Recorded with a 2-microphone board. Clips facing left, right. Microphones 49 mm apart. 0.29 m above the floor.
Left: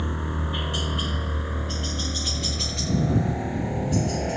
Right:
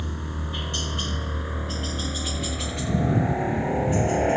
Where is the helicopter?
20° left (ahead or behind); by 4.4 s 30° right (ahead or behind).